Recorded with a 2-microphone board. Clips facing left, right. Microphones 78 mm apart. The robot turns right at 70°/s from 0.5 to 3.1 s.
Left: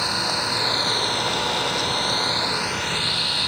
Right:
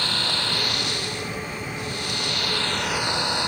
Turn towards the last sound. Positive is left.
turn(degrees=-160)